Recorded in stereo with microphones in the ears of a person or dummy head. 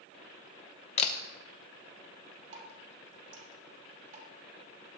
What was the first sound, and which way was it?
A camera shutter, 35° left (ahead or behind).